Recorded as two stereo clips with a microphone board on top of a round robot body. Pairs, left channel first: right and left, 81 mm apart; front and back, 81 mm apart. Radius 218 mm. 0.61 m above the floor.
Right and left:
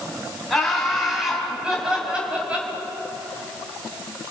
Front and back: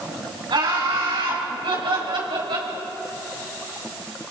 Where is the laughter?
175° right, 5.5 m; by 2.7 s 165° left, 5 m.